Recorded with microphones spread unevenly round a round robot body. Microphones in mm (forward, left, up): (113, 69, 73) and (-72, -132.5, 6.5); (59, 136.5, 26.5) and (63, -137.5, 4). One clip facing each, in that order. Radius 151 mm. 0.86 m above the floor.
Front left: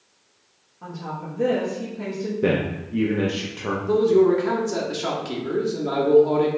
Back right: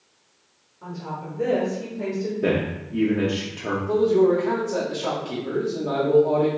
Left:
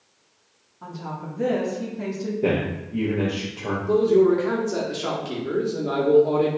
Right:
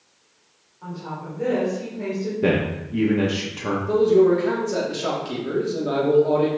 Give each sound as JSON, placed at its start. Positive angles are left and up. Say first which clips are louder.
{"t": 0.8, "sound": "a woman speaking", "louder": "even, right 1 dB", "azimuth_deg": 140, "distance_m": 1.2}
{"t": 2.4, "sound": "a man speaking", "louder": "front left 2 dB, right 2 dB", "azimuth_deg": -45, "distance_m": 0.8}
{"t": 3.9, "sound": "a man speaking", "louder": "front left 1 dB, right 1 dB", "azimuth_deg": 0, "distance_m": 1.1}